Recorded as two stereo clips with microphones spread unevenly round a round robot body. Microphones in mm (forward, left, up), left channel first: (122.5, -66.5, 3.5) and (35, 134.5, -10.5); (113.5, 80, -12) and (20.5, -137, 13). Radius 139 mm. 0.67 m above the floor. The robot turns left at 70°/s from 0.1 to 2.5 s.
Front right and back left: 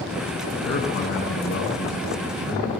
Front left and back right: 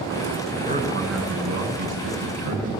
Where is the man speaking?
50° right, 7.5 m; by 2.7 s straight behind, 7.5 m.